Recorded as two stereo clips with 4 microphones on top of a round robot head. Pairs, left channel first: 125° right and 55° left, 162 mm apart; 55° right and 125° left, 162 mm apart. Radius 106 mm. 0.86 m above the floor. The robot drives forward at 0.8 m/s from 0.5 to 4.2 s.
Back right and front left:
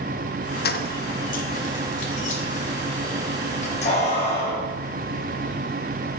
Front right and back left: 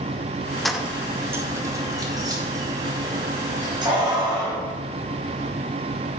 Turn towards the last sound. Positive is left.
turn(degrees=-175)